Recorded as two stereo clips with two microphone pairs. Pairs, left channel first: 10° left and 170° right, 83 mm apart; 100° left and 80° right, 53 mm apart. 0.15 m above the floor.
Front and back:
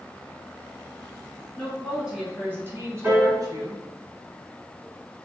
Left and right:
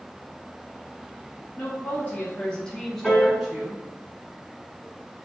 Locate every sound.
1.6 s a woman speaking: 90° left, 1.2 m; by 4.0 s 160° right, 1.7 m
3.0 s a piano: 170° left, 1.4 m